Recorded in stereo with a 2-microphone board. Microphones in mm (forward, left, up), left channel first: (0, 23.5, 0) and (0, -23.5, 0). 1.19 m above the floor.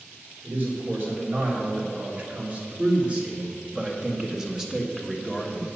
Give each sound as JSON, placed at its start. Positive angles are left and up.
{"t": 0.4, "sound": "a man speaking", "side_deg": -45, "distance_m": 3.5}